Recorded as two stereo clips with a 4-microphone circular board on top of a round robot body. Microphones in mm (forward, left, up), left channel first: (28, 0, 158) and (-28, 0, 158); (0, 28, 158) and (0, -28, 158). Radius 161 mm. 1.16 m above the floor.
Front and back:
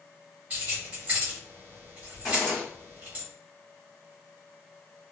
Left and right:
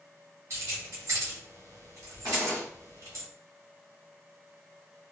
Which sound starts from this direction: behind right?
Keys jangling, at 0.5 s.